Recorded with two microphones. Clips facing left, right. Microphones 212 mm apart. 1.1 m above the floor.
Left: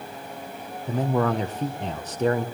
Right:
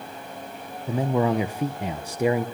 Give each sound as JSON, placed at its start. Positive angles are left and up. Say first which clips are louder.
{"t": 0.9, "sound": "a man speaking", "louder": "right 1 dB", "side_deg": -10, "distance_m": 0.6}